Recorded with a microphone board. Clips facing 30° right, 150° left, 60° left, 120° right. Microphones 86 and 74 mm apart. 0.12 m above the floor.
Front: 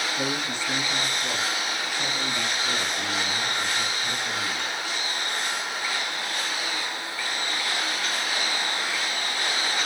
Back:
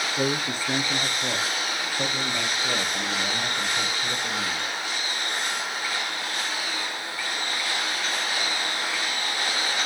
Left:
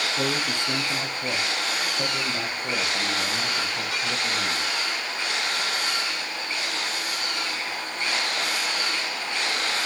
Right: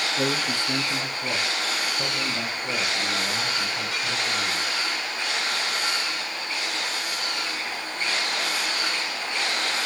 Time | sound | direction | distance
0.2 | a man speaking | 130° left | 1.6 m